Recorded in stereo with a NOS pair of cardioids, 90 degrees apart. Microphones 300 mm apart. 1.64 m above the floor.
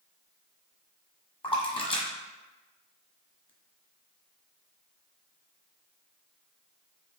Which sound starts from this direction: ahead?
A splash, at 1.4 s.